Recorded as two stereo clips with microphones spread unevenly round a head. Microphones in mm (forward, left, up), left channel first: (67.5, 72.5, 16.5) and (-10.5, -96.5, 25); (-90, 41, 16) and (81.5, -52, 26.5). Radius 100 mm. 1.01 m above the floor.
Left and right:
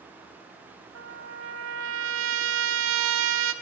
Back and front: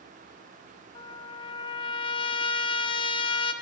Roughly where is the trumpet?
Behind right.